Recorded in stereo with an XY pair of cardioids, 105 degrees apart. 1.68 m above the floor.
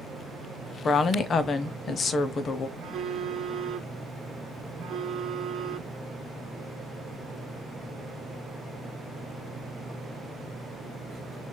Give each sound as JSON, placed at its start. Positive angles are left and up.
{"t": 0.8, "sound": "a woman speaking", "azimuth_deg": 50, "distance_m": 0.7}
{"t": 2.8, "sound": "a phone buzzing", "azimuth_deg": -60, "distance_m": 0.9}